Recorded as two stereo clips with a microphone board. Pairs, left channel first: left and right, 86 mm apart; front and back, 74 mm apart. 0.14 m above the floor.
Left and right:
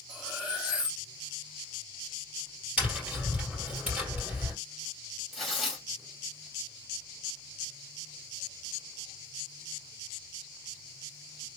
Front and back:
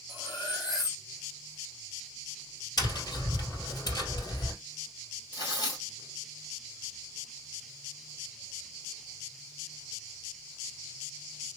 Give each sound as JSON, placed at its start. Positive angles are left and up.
{"t": 0.1, "sound": "cutlery clinking", "azimuth_deg": -10, "distance_m": 3.0}
{"t": 2.8, "sound": "tapping", "azimuth_deg": -20, "distance_m": 3.0}
{"t": 5.3, "sound": "tearing paper", "azimuth_deg": -5, "distance_m": 2.5}